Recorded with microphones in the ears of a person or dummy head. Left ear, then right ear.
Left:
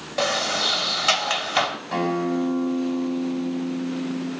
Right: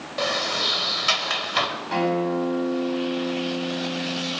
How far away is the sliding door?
About 1.6 m.